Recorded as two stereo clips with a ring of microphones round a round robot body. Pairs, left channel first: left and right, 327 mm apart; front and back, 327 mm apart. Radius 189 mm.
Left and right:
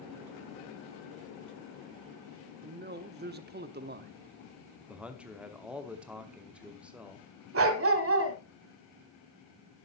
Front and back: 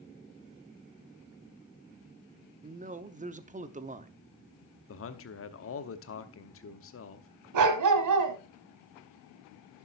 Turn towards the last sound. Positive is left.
turn(degrees=-145)